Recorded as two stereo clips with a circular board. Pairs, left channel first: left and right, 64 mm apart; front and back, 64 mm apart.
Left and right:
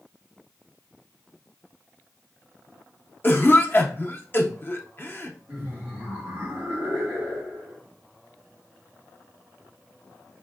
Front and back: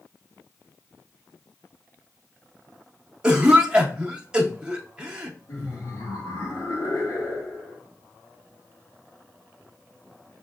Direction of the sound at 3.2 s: 110° left.